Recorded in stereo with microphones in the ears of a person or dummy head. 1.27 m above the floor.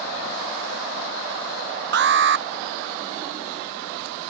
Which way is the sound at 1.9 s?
50° right (ahead or behind).